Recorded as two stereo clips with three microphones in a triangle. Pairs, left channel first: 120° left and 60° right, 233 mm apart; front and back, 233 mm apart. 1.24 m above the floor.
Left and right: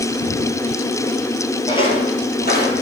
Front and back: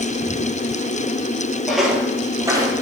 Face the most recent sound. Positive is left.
turn(degrees=115)